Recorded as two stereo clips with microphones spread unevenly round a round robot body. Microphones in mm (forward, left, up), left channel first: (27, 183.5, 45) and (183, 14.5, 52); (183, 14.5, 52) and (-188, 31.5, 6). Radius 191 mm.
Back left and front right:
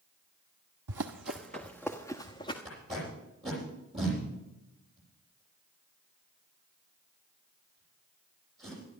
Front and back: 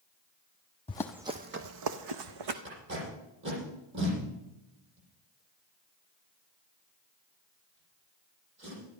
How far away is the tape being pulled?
About 8.5 m.